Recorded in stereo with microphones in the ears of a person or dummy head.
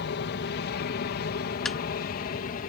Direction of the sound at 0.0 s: 55° left (ahead or behind).